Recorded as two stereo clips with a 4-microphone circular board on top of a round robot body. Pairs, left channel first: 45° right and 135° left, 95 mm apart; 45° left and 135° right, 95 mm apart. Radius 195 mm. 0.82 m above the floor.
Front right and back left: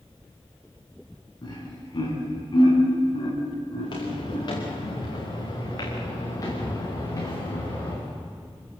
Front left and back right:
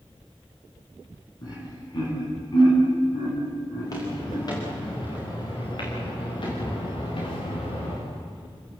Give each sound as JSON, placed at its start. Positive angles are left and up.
{"t": 1.4, "sound": "laughter", "azimuth_deg": 0, "distance_m": 9.5}
{"t": 3.8, "sound": "footsteps", "azimuth_deg": -5, "distance_m": 9.0}